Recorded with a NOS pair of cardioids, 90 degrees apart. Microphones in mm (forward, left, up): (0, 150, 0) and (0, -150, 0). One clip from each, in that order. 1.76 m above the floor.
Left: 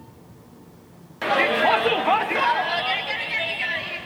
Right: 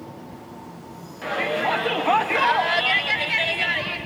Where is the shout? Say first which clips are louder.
Left 5 dB; 45° left, 1.0 m; by 4.0 s 45° right, 1.9 m.